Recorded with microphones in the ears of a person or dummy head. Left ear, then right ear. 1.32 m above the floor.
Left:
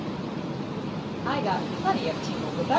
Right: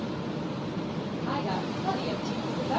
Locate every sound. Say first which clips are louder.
1.2 s a woman speaking: left 5 dB; 65° left (ahead or behind), 1.4 m